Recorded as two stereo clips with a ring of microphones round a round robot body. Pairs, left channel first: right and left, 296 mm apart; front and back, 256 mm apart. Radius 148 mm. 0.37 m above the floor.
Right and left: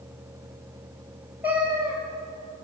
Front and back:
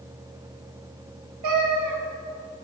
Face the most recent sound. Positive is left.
turn(degrees=175)